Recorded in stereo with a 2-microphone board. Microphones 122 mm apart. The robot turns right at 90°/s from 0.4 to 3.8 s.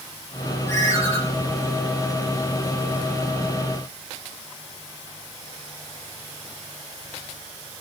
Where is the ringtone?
60° left, 5.5 m; by 1.2 s 105° left, 5.5 m.